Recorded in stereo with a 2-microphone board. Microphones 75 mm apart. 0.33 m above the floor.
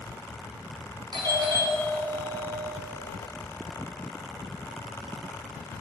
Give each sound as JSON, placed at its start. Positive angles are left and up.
{"t": 1.1, "sound": "a doorbell", "side_deg": -65, "distance_m": 5.0}